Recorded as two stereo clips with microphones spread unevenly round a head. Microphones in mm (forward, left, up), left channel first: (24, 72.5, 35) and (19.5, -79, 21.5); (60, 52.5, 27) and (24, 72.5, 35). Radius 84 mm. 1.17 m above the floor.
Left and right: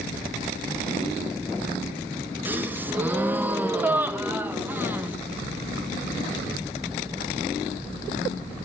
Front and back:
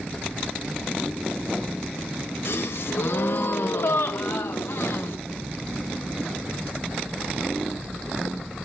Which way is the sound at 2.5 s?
15° right.